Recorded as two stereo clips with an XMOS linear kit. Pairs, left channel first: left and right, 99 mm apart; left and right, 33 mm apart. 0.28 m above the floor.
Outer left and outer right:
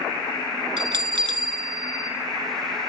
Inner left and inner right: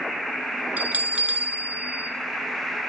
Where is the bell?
65° right (ahead or behind), 0.6 m.